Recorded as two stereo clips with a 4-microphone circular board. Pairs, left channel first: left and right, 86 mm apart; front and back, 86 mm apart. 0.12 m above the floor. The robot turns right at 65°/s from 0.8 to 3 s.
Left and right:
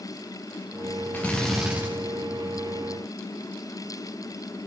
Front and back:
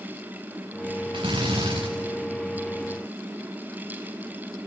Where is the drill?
160° left, 5.5 m; by 1.9 s 150° right, 5.5 m.